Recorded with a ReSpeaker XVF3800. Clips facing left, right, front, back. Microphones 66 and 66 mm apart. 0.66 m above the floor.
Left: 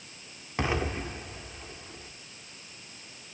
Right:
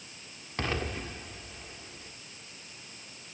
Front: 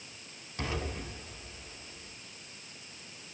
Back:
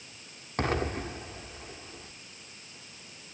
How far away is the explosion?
About 2 m.